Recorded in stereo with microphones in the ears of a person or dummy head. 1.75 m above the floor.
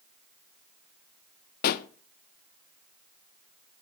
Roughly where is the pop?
Left.